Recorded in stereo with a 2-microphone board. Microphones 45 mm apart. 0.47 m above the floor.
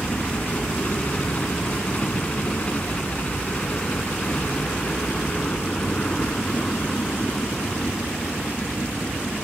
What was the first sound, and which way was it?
A helicopter, 30° left (ahead or behind).